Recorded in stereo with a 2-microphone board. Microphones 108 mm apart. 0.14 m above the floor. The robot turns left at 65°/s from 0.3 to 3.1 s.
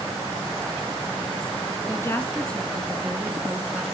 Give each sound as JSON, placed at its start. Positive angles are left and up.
{"t": 1.9, "sound": "a woman speaking", "azimuth_deg": 60, "distance_m": 1.7}